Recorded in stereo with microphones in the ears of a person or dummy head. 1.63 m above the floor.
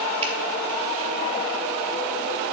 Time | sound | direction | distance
0.2 | a finger snap | 40° right (ahead or behind) | 1.8 m